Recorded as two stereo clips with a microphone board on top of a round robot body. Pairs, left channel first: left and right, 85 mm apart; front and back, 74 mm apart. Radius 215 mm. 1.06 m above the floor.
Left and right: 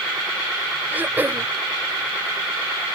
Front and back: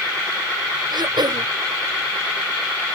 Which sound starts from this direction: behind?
Throat clearing, at 0.9 s.